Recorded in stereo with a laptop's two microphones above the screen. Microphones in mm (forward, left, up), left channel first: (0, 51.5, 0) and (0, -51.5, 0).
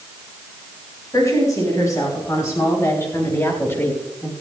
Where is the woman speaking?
35° left (ahead or behind), 5 m; by 4.3 s 15° left (ahead or behind), 1.7 m.